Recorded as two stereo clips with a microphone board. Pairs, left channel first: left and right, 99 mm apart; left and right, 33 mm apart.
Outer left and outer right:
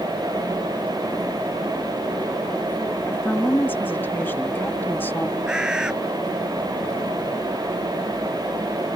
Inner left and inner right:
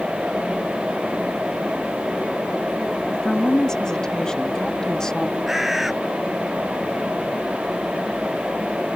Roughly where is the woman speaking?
Centre.